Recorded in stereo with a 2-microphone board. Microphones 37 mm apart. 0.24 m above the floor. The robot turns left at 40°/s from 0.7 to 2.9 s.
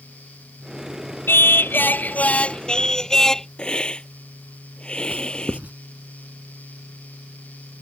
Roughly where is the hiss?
Left.